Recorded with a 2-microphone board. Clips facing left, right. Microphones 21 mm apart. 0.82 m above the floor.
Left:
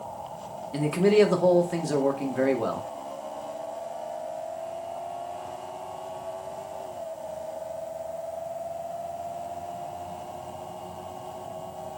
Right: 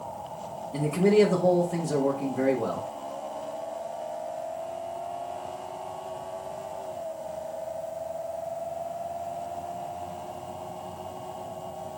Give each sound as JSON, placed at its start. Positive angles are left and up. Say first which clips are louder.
{"t": 0.7, "sound": "a man speaking", "louder": "left 1 dB", "side_deg": 60, "distance_m": 1.9}